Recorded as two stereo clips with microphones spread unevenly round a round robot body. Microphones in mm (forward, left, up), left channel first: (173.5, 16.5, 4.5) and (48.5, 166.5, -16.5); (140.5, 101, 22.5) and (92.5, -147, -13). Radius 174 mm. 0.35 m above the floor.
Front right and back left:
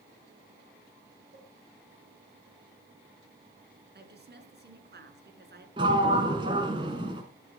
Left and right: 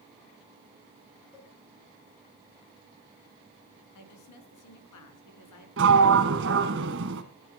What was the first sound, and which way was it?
A cowbell, 175° left.